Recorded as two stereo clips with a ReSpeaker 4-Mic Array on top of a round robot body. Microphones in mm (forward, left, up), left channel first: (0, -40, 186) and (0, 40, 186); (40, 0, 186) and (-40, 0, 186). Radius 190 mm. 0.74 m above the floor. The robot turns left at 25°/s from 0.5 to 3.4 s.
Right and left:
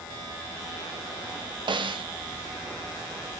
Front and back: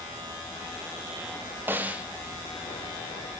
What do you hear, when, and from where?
1.7 s a snare drum: 115° left, 2 m; by 2.0 s 105° left, 2 m